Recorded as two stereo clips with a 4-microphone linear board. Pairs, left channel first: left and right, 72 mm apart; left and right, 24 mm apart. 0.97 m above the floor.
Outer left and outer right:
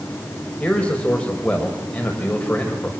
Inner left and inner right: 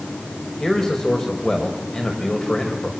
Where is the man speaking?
20° left (ahead or behind), 5 m.